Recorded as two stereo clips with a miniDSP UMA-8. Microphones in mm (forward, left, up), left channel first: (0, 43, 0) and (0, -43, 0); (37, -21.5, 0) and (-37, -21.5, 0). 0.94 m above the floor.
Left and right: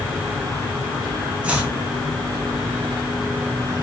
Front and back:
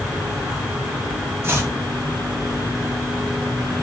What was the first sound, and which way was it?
Chopping, 155° right.